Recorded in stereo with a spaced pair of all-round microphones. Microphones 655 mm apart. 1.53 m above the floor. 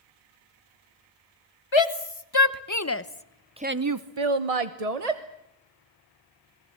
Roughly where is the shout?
Left.